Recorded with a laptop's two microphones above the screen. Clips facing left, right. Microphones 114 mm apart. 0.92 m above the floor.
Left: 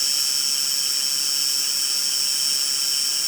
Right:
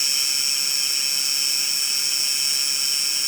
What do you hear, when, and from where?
0.0 s an insect: 80° right